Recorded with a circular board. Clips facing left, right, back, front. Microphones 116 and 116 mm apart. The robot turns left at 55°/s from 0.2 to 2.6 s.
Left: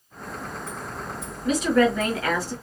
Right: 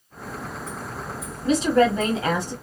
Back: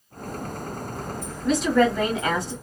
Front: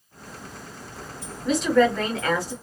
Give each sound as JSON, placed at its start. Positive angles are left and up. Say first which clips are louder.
{"t": 1.4, "sound": "a woman speaking", "louder": "right 2 dB, even", "azimuth_deg": -85, "distance_m": 1.4}